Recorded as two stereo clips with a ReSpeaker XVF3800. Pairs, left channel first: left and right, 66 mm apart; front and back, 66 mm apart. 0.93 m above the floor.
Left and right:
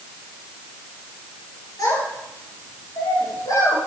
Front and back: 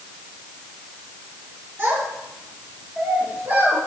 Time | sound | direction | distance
1.8 | a child speaking | 120° left | 8 m